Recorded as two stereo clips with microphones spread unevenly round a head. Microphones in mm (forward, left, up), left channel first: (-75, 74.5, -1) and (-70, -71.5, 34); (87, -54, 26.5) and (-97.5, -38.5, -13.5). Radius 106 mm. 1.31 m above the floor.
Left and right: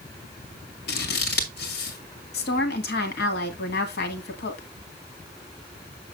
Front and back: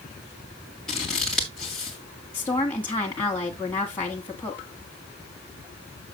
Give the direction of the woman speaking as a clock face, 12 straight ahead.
10 o'clock.